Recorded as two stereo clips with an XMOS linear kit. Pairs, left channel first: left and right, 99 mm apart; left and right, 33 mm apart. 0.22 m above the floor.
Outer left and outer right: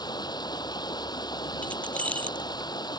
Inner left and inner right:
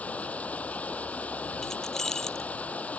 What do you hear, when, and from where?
0.0 s running water: 45° left (ahead or behind)
1.6 s keys jangling: 15° left (ahead or behind)